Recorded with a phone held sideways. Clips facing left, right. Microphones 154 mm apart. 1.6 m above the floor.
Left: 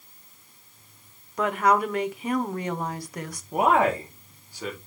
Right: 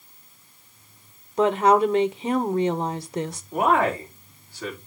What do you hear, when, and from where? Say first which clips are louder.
1.4 s a woman speaking: right 5 dB; 25° right (ahead or behind), 1.0 m
3.5 s a man speaking: even; 15° left (ahead or behind), 4 m